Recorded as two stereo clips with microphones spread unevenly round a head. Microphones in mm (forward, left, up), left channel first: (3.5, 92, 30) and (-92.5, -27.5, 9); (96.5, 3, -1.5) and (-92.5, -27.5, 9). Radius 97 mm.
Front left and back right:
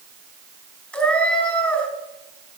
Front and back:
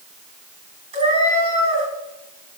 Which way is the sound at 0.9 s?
130° left.